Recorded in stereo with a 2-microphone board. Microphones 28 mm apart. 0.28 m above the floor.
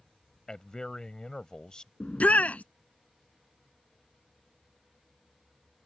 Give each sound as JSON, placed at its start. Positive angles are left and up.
{"t": 0.5, "sound": "a man speaking", "side_deg": 25}
{"t": 2.0, "sound": "a shout", "side_deg": 60}